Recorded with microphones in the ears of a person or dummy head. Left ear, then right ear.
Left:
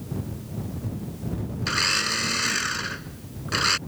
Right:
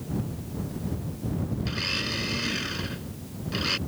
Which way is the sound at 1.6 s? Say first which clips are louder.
Left 7 dB; 50° left (ahead or behind).